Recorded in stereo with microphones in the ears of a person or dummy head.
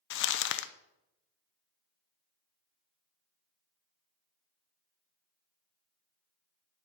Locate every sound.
0.1 s crumpling: 60° left (ahead or behind), 0.6 m